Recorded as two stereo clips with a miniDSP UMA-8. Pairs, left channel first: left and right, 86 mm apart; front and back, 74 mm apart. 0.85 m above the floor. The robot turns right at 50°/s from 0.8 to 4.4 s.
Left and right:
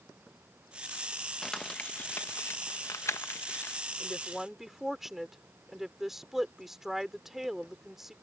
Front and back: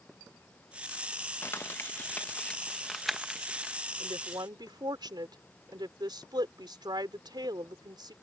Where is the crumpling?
10° left; by 3.8 s 125° left.